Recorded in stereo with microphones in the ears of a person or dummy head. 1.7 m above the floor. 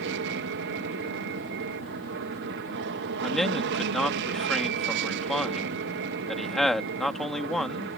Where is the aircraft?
65° right (ahead or behind).